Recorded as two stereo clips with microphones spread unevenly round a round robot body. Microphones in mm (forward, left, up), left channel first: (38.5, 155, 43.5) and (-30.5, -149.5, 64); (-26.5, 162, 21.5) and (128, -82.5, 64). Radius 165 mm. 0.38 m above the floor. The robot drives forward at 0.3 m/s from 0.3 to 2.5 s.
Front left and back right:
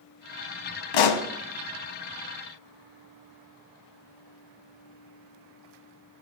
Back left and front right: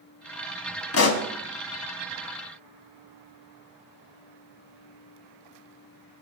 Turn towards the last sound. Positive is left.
turn(degrees=115)